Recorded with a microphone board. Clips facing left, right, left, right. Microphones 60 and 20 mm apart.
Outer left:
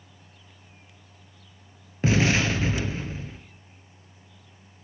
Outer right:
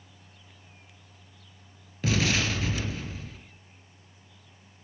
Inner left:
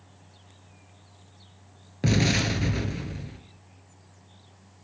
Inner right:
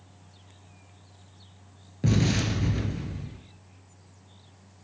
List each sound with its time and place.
2.0 s an explosion: 35° left (ahead or behind), 0.7 m